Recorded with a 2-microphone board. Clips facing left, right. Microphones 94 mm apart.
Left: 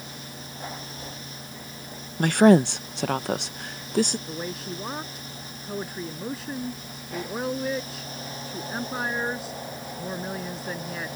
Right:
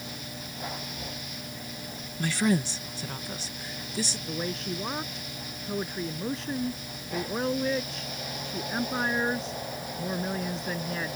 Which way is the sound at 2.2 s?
55° left (ahead or behind).